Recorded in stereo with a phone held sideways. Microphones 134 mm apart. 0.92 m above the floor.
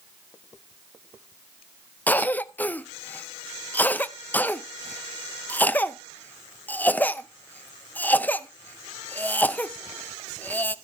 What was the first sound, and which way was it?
A cough, 15° left (ahead or behind).